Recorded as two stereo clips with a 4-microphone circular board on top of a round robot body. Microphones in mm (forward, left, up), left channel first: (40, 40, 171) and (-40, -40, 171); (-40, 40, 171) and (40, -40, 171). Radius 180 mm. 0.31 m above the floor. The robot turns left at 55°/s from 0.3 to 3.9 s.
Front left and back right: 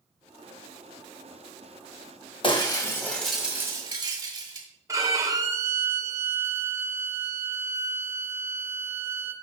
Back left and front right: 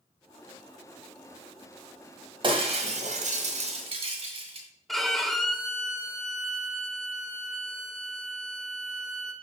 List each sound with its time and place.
2.4 s breaking glass: 5° left, 1.5 m; by 4.7 s 75° right, 1.5 m
4.9 s a violin: 140° right, 1.6 m